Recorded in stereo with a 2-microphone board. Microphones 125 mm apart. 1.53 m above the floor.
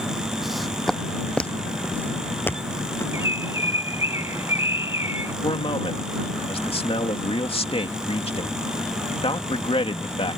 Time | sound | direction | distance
0.4 | footsteps | centre (ahead or behind) | ?
3.1 | a bird | 20° right (ahead or behind) | ?
5.4 | a man speaking | 45° left (ahead or behind) | ?